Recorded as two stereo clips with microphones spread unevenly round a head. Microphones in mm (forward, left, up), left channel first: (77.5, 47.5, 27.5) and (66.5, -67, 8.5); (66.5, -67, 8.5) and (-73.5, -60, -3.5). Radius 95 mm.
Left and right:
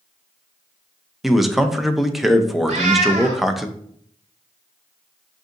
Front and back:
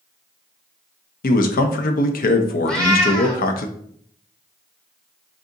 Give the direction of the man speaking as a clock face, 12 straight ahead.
12 o'clock.